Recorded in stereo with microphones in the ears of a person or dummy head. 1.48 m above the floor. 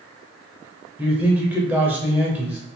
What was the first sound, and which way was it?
A man speaking, 10° right (ahead or behind).